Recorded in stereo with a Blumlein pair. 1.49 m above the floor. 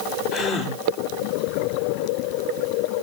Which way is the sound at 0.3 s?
35° left.